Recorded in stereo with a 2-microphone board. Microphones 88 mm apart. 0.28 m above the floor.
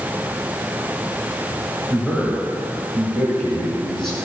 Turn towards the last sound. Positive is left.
turn(degrees=5)  # may be behind; listen again after turning